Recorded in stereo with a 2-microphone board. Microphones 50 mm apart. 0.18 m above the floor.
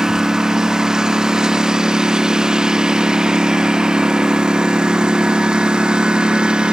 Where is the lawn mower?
10° right (ahead or behind); by 6.7 s 20° right (ahead or behind).